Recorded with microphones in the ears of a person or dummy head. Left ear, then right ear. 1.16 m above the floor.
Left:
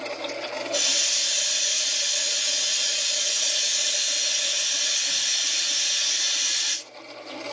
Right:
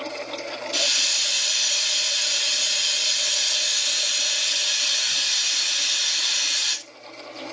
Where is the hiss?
35° right (ahead or behind), 0.6 m.